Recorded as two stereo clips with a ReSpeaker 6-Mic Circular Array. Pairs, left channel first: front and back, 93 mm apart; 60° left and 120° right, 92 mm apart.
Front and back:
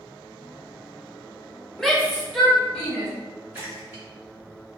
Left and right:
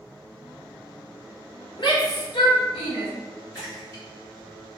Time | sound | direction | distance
1.8 | a shout | 85° left | 1.0 m
3.5 | a splash | 115° left | 1.8 m